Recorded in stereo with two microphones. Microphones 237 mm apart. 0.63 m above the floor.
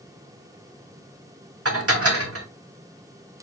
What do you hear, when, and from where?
1.6 s dishes clattering: 75° right (ahead or behind), 0.8 m